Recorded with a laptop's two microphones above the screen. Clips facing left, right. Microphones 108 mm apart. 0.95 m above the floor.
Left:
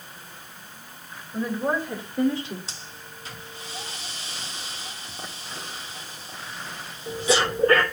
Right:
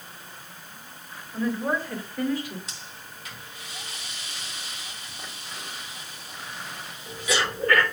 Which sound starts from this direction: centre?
A woman speaking, at 1.3 s.